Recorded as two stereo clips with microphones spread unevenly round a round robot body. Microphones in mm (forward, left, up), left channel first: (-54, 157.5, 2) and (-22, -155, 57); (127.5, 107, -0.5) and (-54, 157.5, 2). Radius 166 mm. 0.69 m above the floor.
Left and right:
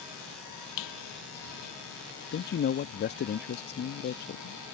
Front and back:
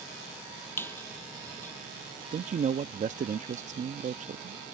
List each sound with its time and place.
0.8 s a squeak: 65° left
2.3 s a man speaking: 130° left